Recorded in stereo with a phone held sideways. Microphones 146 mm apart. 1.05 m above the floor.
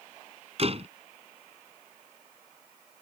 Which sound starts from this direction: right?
A door slam, at 0.6 s.